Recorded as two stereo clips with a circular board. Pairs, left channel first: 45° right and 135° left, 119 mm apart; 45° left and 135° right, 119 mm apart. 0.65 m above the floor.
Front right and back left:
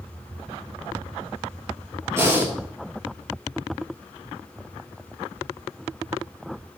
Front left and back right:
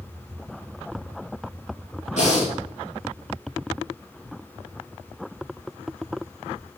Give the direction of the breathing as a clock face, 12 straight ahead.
10 o'clock.